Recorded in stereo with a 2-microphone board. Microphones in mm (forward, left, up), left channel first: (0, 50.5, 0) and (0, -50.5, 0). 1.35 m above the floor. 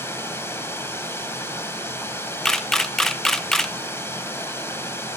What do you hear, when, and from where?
0.0 s running water: 25° left (ahead or behind), 2 m
2.5 s a camera shutter: 5° left (ahead or behind), 0.7 m